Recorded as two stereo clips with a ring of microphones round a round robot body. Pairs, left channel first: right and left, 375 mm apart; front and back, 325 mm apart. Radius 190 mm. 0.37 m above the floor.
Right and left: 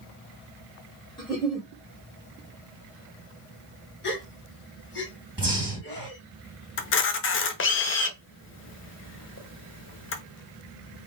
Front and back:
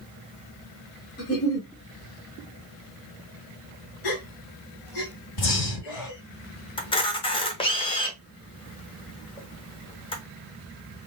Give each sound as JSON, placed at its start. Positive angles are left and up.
{"t": 1.2, "sound": "a giggle", "azimuth_deg": -15, "distance_m": 1.5}
{"t": 4.0, "sound": "a gasp", "azimuth_deg": -25, "distance_m": 1.0}
{"t": 5.4, "sound": "breathing", "azimuth_deg": 5, "distance_m": 2.0}
{"t": 6.8, "sound": "a camera shutter", "azimuth_deg": -65, "distance_m": 0.7}